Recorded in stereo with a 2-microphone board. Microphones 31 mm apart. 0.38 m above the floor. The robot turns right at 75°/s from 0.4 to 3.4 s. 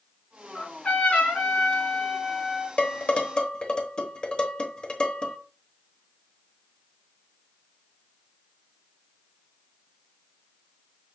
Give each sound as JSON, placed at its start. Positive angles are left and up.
{"t": 0.6, "sound": "a trumpet", "azimuth_deg": 25, "distance_m": 3.0}
{"t": 2.8, "sound": "dishes clattering", "side_deg": 50, "distance_m": 1.1}